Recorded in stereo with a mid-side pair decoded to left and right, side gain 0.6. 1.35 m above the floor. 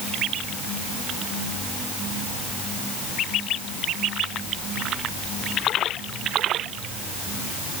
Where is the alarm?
I don't hear an alarm.